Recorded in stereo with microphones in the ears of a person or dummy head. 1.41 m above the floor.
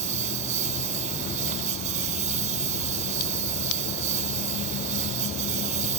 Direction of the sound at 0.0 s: 40° right (ahead or behind).